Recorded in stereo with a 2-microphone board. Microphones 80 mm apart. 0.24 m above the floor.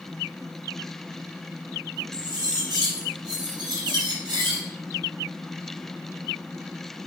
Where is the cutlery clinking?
60° right (ahead or behind), 3.5 m.